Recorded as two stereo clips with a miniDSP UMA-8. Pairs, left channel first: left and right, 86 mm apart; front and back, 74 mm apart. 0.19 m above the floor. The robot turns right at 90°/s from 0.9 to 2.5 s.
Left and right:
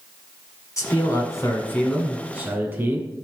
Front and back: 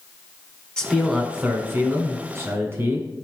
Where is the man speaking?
70° left, 1.8 m; by 3.1 s 145° right, 1.8 m.